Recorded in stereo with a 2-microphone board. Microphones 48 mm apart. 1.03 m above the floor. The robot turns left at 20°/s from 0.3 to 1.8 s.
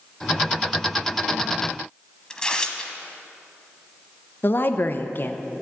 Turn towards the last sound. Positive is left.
turn(degrees=45)  # may be behind; listen again after turning